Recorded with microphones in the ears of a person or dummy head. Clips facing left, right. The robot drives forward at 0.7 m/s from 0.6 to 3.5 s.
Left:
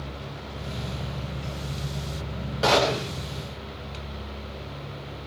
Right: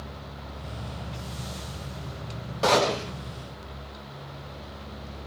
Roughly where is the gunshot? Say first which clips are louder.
Left 1 dB; centre.